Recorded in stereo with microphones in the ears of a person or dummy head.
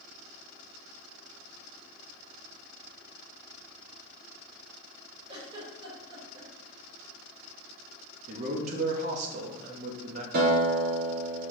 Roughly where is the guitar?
Right.